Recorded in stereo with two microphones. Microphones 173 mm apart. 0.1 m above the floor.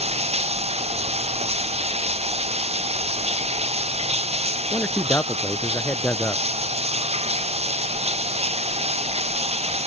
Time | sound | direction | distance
0.0 | running water | 35° right (ahead or behind) | ?
4.7 | a man speaking | 10° left (ahead or behind) | ?